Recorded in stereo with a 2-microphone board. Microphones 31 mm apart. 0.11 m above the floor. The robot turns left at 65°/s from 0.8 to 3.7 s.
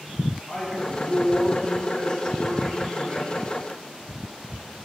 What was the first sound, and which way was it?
A man speaking, 130° left.